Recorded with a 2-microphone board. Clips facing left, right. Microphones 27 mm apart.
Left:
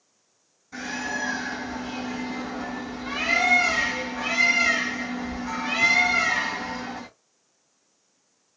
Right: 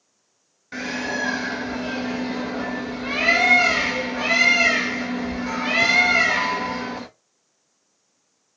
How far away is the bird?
About 0.7 m.